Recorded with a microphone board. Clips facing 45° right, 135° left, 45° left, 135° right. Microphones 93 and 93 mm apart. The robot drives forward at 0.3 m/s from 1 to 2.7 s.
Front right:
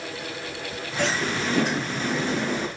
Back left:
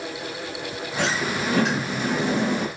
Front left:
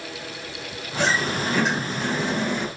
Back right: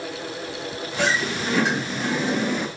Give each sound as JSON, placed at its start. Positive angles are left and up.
{"t": 1.0, "sound": "a sliding door", "azimuth_deg": 150, "distance_m": 8.5}